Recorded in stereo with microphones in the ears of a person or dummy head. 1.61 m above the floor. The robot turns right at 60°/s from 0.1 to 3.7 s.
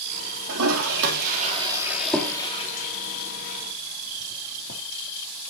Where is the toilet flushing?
75° right (ahead or behind), 3 m; by 4.8 s 80° left, 3 m.